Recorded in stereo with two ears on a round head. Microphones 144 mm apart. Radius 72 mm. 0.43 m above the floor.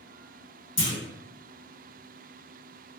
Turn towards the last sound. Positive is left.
turn(degrees=30)  # may be behind; listen again after turning